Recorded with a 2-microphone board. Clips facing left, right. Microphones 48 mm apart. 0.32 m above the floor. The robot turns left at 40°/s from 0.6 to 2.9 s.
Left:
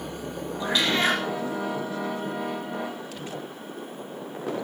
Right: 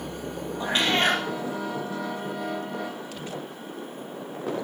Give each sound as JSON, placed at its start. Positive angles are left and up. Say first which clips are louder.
{"t": 0.6, "sound": "a cat meowing", "louder": "right 1 dB", "side_deg": -30, "distance_m": 4.0}